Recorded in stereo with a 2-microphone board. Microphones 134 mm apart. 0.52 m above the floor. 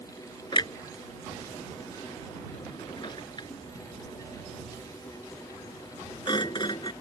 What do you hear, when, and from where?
0.5 s a clunk: 35° left (ahead or behind)